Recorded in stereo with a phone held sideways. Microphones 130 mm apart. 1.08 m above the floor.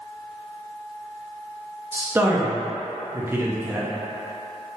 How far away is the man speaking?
About 0.6 m.